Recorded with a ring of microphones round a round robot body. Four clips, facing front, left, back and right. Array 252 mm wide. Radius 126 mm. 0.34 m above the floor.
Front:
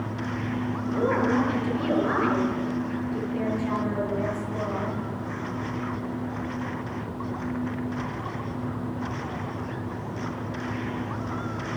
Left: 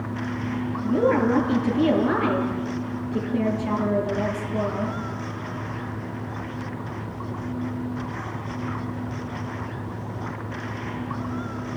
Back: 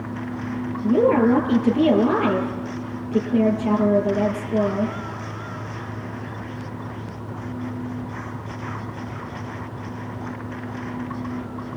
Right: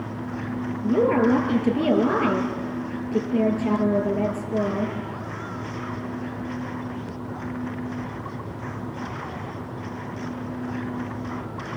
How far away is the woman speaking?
About 7.5 m.